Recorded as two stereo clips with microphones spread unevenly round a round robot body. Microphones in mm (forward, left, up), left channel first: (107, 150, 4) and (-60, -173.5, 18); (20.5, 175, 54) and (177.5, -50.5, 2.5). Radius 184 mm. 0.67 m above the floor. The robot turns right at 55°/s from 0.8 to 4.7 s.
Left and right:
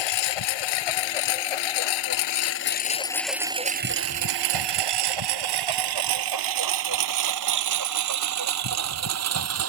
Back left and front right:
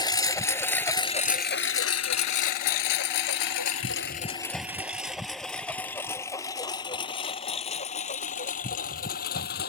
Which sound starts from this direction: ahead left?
A lawn mower, at 0.0 s.